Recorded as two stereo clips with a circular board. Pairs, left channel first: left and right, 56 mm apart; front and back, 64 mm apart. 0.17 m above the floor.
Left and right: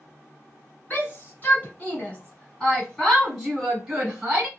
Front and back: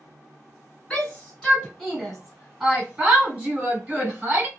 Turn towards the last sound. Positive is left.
turn(degrees=-155)